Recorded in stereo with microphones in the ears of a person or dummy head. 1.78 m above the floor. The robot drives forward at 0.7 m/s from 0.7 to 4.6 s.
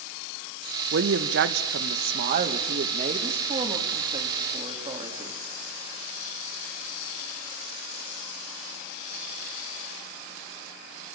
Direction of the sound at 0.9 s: 60° right (ahead or behind).